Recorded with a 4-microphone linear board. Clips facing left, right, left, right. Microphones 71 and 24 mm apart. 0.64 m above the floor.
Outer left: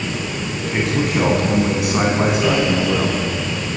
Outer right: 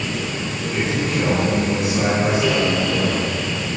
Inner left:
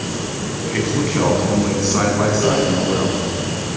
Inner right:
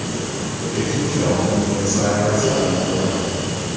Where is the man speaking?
65° left (ahead or behind), 6 m; by 3.2 s 75° left (ahead or behind), 8 m.